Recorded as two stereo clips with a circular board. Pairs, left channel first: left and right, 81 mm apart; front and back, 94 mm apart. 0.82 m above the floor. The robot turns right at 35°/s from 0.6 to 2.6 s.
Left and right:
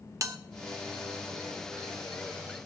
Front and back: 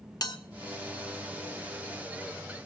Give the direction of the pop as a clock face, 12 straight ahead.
I don't hear a pop.